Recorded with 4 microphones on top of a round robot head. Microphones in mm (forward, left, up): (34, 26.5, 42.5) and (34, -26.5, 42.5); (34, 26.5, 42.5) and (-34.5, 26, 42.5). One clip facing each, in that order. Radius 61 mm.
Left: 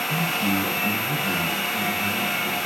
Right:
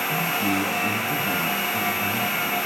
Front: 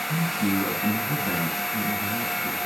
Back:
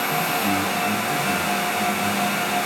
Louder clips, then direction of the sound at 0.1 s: Even, even; 35° right.